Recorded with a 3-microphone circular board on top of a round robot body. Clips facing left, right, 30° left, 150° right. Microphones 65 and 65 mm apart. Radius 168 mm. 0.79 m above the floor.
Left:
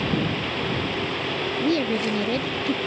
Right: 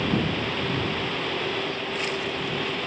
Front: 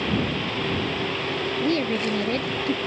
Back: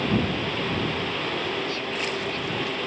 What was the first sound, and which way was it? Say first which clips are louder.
A woman speaking: left 7 dB, front 6 dB; 75° left.